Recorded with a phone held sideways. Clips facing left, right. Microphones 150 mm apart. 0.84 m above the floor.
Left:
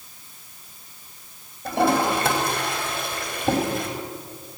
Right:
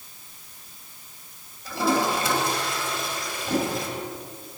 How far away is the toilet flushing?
About 4.5 m.